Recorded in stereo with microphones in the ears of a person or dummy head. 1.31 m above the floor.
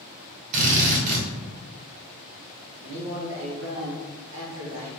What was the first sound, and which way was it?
A drill, 45° right (ahead or behind).